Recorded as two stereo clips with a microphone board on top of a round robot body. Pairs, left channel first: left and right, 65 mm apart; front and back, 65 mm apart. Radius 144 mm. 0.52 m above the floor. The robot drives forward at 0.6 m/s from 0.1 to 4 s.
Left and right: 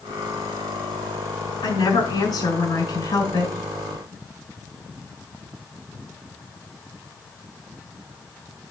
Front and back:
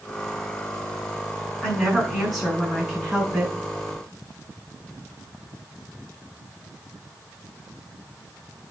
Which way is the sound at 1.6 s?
85° left.